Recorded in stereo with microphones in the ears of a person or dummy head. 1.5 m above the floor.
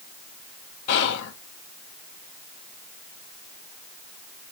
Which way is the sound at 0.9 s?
70° left (ahead or behind).